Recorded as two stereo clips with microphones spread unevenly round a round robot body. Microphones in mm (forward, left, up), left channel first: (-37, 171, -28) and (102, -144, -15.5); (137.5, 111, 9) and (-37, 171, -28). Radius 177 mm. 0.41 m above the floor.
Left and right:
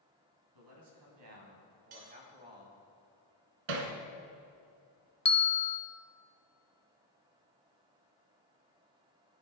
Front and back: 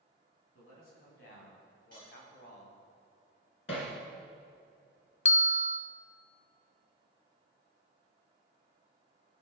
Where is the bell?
45° left, 0.7 m.